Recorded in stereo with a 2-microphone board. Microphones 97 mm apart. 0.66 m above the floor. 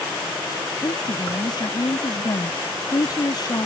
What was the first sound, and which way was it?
A woman speaking, 45° left (ahead or behind).